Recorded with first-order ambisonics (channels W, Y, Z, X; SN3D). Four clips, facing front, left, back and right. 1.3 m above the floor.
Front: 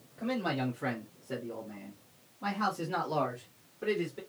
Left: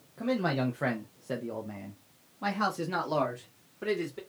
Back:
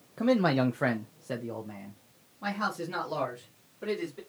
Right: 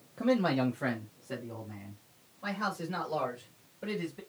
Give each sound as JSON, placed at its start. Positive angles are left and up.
{"t": 0.2, "sound": "a man speaking", "azimuth_deg": -170, "distance_m": 0.7}